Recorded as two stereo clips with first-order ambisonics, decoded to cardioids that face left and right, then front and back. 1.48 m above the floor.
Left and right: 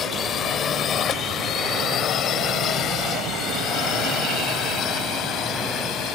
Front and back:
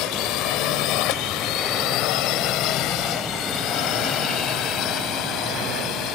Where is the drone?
30° left; by 6.2 s 40° left.